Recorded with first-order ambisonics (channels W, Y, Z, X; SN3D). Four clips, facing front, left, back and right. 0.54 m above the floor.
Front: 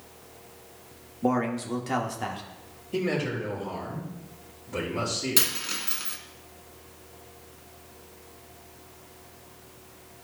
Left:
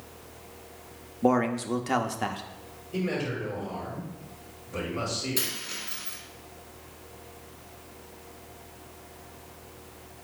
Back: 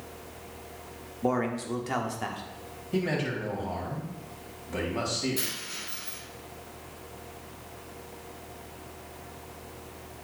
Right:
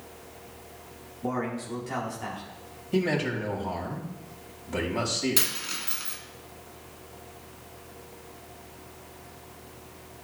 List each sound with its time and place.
1.2 s a man speaking: 85° left, 1.0 m
2.9 s a man speaking: 110° right, 3 m
5.4 s a dropped coin: 35° right, 1.6 m